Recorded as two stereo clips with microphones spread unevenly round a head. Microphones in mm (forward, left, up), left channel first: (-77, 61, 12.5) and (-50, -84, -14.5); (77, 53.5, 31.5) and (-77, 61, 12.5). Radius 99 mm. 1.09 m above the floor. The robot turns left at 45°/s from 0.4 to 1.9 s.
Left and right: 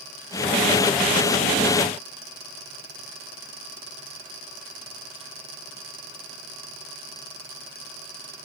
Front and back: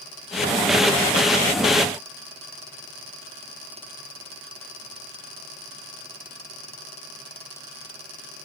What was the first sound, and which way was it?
Only background noise.